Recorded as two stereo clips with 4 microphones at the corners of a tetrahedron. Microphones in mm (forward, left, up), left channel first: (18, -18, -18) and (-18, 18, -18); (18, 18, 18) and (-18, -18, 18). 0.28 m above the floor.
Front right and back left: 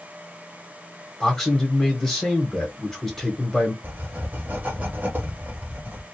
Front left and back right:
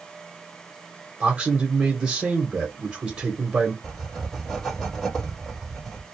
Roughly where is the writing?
Behind left.